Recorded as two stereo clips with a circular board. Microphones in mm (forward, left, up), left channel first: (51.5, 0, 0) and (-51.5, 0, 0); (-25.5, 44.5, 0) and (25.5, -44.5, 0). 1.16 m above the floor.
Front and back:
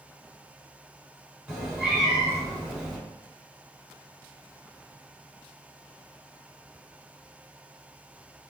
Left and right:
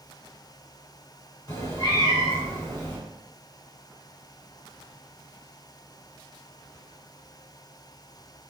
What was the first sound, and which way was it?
A cat meowing, 105° left.